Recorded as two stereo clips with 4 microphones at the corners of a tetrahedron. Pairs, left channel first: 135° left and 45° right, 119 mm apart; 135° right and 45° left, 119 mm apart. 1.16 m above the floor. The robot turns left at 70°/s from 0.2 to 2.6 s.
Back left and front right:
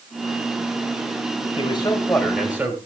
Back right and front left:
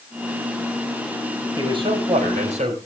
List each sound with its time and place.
1.6 s a man speaking: 100° left, 5.5 m; by 2.8 s 30° left, 5.5 m